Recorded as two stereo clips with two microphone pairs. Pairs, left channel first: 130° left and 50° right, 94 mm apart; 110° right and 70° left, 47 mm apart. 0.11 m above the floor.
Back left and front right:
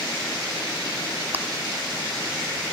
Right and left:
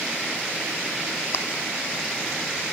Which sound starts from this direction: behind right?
Chewing, at 1.3 s.